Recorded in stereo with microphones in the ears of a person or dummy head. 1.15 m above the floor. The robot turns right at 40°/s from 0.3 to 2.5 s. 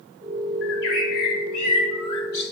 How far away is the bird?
About 1.5 m.